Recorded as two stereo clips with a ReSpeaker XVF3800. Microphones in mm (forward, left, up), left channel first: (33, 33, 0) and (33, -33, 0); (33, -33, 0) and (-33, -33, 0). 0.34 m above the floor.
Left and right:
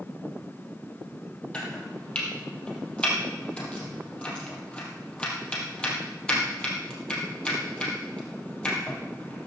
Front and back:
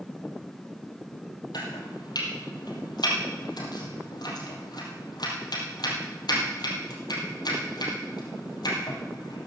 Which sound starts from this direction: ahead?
Chopping, at 1.5 s.